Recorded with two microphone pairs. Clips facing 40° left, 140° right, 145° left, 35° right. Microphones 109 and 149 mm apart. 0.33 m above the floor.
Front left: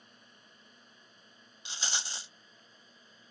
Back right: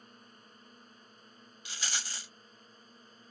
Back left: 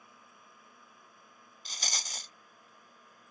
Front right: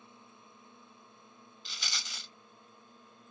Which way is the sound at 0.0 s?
95° right.